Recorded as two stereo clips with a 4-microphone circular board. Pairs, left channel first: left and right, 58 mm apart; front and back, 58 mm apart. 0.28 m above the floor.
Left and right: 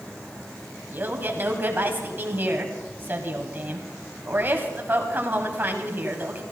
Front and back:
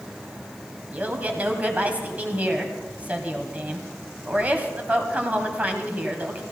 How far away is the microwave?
I don't hear a microwave.